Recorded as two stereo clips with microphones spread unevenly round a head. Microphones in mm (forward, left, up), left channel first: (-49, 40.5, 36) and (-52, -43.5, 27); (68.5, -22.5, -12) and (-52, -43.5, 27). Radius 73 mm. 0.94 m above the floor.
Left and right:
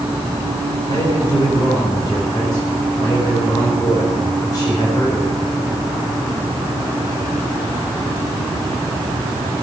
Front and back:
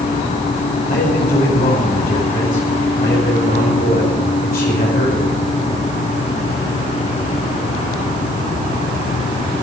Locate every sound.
0.9 s a man speaking: 30° left, 4.5 m